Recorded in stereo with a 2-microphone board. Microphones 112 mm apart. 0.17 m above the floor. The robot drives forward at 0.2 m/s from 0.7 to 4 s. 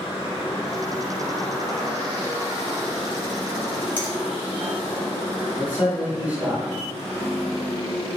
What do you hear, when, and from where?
4.0 s a finger snap: 15° left (ahead or behind), 1.1 m
5.6 s a man speaking: 15° right (ahead or behind), 1.1 m